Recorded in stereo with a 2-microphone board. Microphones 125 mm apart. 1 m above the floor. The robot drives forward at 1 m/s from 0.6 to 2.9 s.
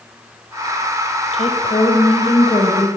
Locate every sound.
1.3 s a woman speaking: 55° left (ahead or behind), 3.5 m; by 2.9 s 40° left (ahead or behind), 5 m